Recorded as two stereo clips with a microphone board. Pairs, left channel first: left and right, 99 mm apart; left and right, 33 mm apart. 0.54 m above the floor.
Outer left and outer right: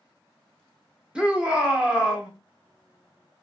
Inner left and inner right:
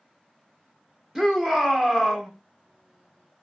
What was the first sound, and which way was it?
A shout, 10° right (ahead or behind).